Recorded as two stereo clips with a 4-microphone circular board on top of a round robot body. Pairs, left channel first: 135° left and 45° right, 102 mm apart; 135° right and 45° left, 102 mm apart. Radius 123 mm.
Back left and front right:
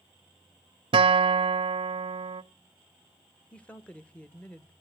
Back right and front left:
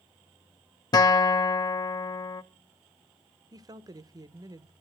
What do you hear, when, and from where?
0.9 s a guitar: 85° right, 0.6 m
3.5 s a woman speaking: 65° left, 1.0 m